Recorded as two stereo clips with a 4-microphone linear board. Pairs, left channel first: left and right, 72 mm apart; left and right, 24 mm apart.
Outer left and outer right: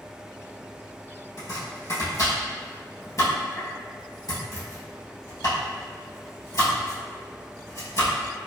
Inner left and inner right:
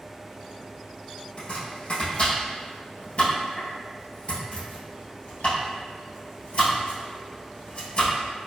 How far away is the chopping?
About 1.9 m.